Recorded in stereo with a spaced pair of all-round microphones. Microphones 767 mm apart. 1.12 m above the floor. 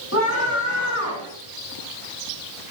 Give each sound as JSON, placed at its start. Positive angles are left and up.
{"t": 0.1, "sound": "a scream", "side_deg": 20, "distance_m": 7.5}